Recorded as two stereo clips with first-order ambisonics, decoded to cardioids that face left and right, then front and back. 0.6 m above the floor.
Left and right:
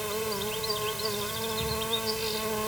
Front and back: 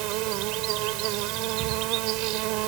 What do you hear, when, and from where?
0.0 s an insect: 175° right